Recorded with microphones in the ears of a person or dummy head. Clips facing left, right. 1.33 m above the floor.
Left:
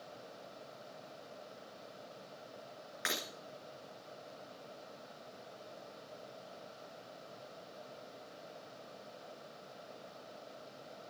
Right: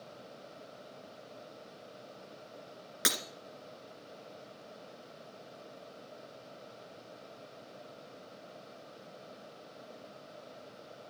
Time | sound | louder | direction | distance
3.0 | breaking glass | right 4 dB | 55° right (ahead or behind) | 2 m